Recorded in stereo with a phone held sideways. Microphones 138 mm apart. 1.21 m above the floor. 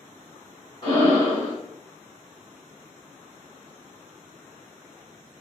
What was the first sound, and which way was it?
Breathing, 35° left (ahead or behind).